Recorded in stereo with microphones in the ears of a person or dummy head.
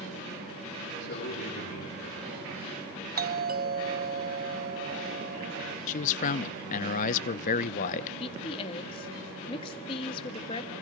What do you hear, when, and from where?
1.0 s a man speaking: 70° left (ahead or behind), 9.5 m
3.2 s a doorbell: 40° right (ahead or behind), 0.9 m
5.9 s a man speaking: 40° left (ahead or behind), 0.8 m
8.2 s a woman speaking: 30° left (ahead or behind), 1.8 m